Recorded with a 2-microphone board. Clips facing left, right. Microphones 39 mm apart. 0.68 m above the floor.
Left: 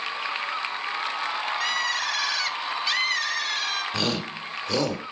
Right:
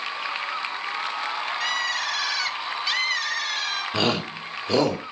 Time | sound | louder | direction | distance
1.6 | a bird | right 1 dB | centre (ahead or behind) | 2.5 m
3.9 | a shout | right 3 dB | 20° right (ahead or behind) | 2.5 m